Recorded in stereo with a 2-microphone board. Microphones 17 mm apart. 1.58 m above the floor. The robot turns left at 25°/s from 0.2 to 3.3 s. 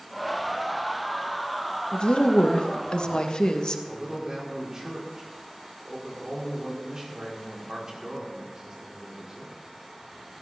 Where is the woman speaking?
95° left, 1.4 m; by 3.8 s 60° left, 1.4 m.